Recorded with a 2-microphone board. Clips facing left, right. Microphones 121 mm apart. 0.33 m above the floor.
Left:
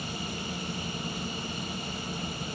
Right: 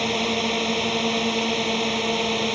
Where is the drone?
75° right (ahead or behind).